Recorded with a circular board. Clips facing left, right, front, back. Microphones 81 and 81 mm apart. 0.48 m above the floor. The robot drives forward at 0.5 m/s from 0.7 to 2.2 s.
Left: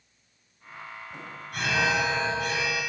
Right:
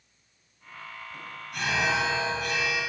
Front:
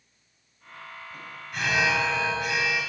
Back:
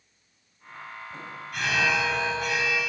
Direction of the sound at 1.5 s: 70° left.